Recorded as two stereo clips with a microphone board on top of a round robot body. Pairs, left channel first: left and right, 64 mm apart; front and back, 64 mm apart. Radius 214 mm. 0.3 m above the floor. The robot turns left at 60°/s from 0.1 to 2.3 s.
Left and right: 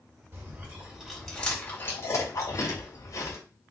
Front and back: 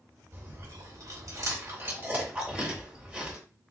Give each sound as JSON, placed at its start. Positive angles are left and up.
{"t": 0.3, "sound": "chewing", "azimuth_deg": -135, "distance_m": 2.0}